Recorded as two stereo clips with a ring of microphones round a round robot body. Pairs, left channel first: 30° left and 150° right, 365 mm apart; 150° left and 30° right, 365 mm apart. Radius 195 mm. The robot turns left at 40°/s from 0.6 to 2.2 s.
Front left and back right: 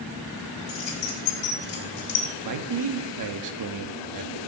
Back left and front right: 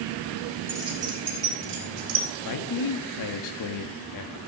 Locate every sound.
0.7 s keys jangling: 55° left, 3.5 m; by 2.2 s 5° right, 3.5 m
2.5 s a man speaking: straight behind, 1.4 m